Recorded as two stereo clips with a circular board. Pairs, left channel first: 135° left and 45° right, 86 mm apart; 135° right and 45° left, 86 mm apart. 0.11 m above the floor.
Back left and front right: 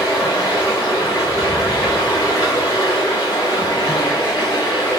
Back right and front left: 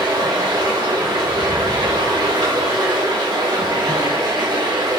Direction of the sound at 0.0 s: 85° left.